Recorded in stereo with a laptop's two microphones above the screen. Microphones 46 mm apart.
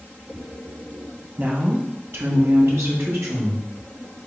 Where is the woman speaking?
35° right (ahead or behind), 0.7 m; by 4.2 s 75° right (ahead or behind), 2 m.